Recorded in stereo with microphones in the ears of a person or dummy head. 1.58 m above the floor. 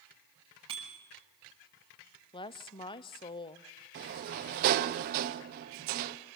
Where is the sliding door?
50° right (ahead or behind), 0.9 m.